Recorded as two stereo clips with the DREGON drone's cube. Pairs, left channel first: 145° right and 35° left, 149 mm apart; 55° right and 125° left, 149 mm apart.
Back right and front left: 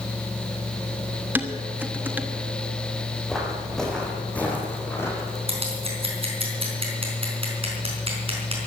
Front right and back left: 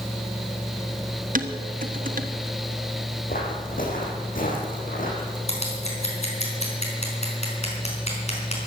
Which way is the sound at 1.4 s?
110° left.